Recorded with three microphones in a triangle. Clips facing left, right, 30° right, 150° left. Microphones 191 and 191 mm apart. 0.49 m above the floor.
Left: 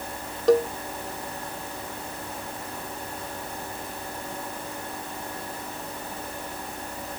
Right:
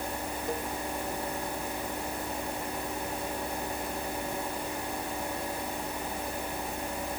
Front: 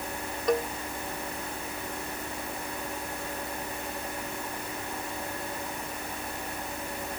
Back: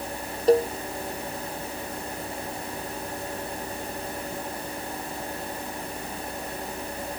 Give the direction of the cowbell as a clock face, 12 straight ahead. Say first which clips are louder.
Left 17 dB, back 8 dB; 9 o'clock.